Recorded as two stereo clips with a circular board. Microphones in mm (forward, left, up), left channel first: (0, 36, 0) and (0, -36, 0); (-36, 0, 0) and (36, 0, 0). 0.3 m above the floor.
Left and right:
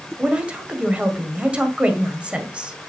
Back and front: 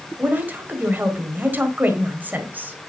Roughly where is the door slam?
I don't hear a door slam.